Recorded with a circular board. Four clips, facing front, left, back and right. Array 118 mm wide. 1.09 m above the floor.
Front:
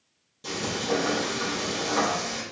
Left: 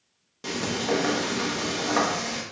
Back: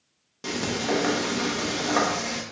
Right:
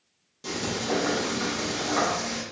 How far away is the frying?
About 0.9 m.